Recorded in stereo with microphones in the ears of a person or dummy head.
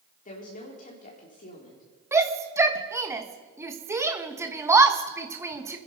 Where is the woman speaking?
40° left (ahead or behind), 4 m.